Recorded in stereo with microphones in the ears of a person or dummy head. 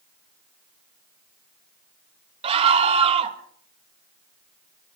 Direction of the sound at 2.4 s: 35° right (ahead or behind).